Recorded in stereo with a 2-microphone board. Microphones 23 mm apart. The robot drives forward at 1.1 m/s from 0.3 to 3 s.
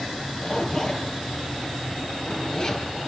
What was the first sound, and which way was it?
A zipper, 25° left (ahead or behind).